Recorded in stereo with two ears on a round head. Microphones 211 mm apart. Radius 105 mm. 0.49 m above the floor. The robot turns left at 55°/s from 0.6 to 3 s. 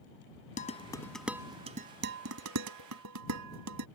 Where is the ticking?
No ticking in this recording.